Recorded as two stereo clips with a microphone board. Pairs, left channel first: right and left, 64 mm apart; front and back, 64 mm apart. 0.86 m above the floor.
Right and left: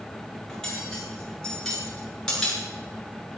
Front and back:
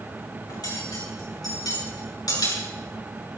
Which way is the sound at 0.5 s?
10° right.